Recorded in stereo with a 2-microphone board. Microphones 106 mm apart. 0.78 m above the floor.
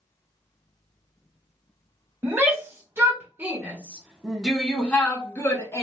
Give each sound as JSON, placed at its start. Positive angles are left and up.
{"t": 2.2, "sound": "a shout", "side_deg": -25, "distance_m": 1.9}